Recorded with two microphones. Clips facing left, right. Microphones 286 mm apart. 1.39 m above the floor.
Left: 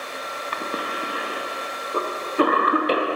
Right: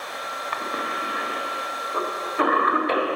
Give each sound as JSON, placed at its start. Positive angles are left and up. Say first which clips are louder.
{"t": 0.5, "sound": "a cough", "louder": "left 2 dB", "side_deg": 35, "distance_m": 0.7}